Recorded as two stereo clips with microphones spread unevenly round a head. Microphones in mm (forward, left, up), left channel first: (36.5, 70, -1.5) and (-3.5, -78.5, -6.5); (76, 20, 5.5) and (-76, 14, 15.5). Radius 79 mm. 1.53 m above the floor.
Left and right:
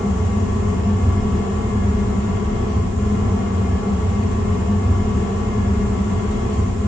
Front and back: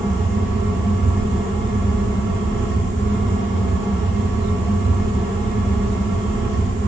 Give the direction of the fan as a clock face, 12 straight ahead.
7 o'clock.